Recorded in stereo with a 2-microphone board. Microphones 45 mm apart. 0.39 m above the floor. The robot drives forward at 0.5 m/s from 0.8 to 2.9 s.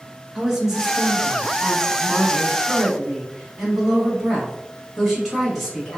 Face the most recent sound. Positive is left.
turn(degrees=-5)  # may be behind; listen again after turning